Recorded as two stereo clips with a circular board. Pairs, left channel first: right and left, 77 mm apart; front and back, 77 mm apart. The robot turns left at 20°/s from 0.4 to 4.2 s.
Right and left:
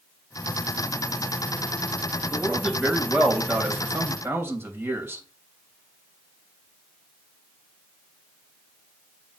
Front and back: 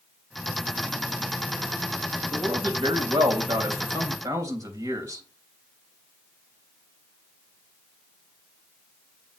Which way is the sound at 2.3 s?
175° right.